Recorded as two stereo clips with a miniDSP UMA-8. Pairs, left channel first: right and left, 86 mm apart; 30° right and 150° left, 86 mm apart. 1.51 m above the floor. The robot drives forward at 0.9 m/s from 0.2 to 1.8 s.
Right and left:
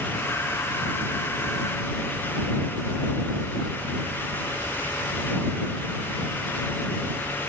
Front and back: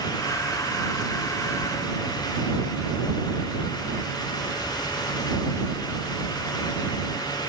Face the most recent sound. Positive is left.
No sound to turn to.